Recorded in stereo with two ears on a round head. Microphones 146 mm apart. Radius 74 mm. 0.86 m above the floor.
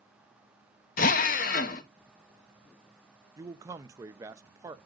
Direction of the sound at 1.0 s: 55° left (ahead or behind).